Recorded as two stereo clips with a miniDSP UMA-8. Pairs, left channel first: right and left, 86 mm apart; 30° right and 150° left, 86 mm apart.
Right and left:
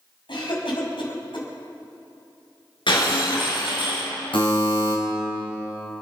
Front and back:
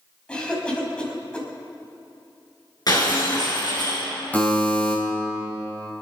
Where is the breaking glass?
70° right, 5.5 m.